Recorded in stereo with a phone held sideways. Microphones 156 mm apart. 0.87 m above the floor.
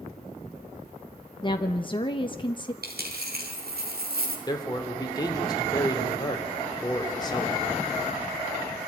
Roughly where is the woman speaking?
Left.